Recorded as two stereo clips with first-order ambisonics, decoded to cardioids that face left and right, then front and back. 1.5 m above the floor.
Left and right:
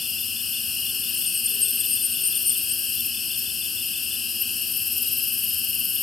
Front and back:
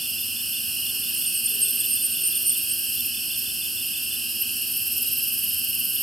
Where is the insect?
115° left, 0.8 m.